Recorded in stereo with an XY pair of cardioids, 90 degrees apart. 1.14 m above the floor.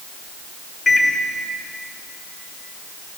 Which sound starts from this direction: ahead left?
A microwave, at 0.9 s.